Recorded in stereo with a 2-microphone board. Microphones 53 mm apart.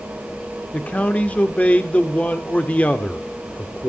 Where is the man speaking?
25° left (ahead or behind), 1.3 m.